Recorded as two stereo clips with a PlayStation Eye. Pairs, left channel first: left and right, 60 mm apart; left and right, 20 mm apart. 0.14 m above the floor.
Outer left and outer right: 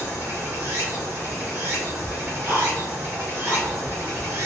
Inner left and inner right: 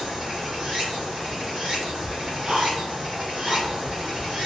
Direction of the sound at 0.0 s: 40° right (ahead or behind).